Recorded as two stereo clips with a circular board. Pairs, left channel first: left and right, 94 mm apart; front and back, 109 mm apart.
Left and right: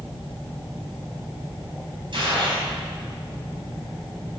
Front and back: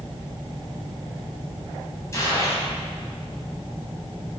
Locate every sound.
2.1 s a gunshot: 60° right, 4.5 m